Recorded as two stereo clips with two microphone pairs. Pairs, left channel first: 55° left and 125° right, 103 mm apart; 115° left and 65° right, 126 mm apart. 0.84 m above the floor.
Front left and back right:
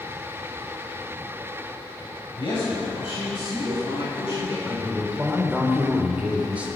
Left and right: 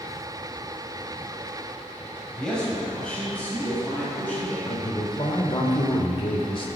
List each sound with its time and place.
2.4 s a man speaking: 30° left, 5.5 m; by 4.6 s 40° left, 7 m
4.7 s a man speaking: 160° left, 3 m